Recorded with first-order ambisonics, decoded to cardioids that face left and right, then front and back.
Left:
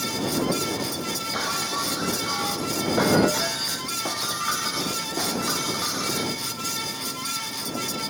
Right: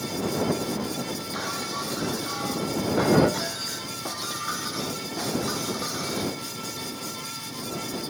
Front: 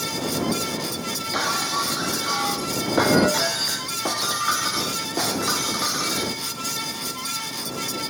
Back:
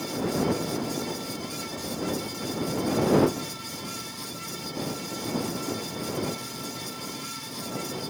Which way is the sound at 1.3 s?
15° left.